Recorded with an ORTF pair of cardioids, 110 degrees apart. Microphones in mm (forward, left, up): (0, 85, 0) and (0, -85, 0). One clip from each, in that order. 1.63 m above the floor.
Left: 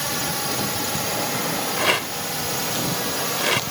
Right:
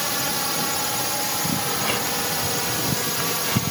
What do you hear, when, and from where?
0.0 s a drone: 20° right
1.8 s a rattle: 55° left